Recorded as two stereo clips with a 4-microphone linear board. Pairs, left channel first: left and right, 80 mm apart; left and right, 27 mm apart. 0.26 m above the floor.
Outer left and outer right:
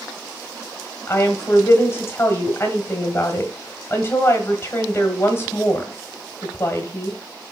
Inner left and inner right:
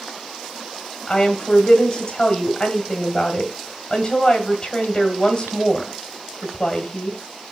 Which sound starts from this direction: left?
A woman speaking, at 1.1 s.